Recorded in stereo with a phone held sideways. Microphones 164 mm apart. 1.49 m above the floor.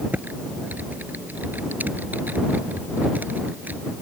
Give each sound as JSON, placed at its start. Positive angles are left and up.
{"t": 0.1, "sound": "typing on a keyboard", "side_deg": -10}